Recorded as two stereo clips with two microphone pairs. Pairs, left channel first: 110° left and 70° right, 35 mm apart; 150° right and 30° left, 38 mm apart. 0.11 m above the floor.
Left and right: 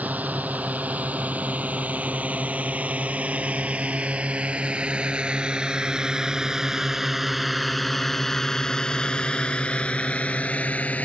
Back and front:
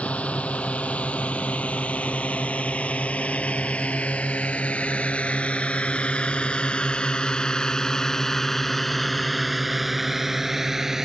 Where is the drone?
100° right; by 11.1 s 105° left.